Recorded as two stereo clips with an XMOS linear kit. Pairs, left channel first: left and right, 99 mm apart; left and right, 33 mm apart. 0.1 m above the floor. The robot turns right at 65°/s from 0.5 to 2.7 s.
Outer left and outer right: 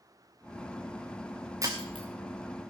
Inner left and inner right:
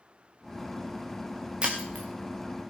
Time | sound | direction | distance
1.6 | breaking glass | 30° right (ahead or behind) | 2.5 m